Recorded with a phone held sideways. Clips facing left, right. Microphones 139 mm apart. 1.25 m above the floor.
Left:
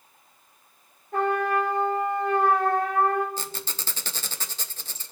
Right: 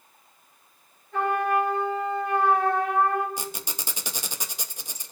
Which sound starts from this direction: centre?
A squeak, at 3.4 s.